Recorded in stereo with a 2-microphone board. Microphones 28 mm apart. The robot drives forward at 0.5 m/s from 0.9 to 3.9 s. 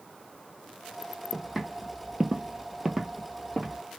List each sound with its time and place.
1.3 s footsteps: 5° right (ahead or behind), 1.4 m; by 3.8 s 10° right (ahead or behind), 1.7 m